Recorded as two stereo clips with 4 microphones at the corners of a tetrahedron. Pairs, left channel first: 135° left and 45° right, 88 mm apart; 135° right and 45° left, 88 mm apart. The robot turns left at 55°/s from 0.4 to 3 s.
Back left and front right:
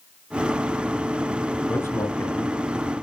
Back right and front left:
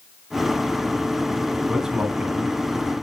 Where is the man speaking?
130° left, 1.6 m; by 2.6 s 85° left, 1.6 m.